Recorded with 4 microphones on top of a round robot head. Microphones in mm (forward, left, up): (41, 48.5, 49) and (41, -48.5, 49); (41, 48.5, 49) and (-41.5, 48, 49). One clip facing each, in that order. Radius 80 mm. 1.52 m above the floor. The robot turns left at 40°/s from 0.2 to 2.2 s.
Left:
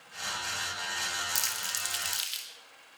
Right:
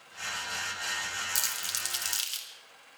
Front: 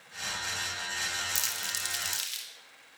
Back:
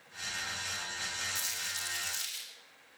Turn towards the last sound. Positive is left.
turn(degrees=-40)